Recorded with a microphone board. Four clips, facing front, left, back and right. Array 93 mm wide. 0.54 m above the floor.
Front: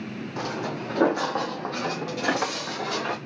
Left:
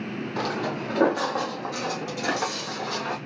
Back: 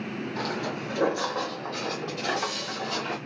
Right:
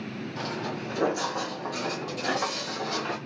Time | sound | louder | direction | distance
0.4 | footsteps | left 5 dB, front 2 dB | 75° left | 1.1 m